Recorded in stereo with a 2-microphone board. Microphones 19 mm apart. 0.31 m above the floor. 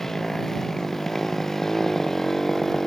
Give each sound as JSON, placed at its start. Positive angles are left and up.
{"t": 0.0, "sound": "a motorcycle", "side_deg": 20}